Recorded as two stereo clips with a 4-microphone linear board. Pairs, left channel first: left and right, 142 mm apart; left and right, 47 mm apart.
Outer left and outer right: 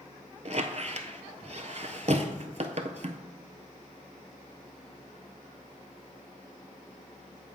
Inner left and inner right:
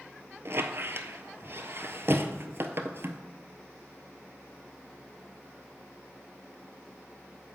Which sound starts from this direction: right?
A squeak, at 0.5 s.